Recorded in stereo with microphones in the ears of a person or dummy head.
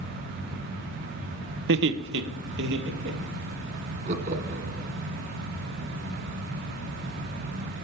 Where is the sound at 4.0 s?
40° right (ahead or behind), 0.8 m.